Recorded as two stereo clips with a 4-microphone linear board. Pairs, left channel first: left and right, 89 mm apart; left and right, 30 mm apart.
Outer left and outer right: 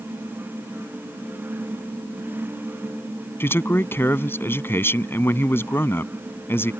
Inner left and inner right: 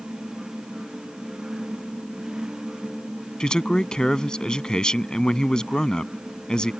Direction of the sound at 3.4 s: 25° left (ahead or behind).